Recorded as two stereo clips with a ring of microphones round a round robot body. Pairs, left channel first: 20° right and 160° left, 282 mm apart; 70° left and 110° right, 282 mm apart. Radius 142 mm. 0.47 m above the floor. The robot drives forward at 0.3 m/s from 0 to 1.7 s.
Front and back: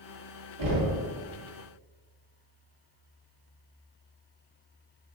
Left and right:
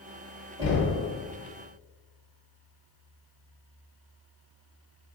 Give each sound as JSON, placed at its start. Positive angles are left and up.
{"t": 0.6, "sound": "knocking", "azimuth_deg": 175, "distance_m": 1.7}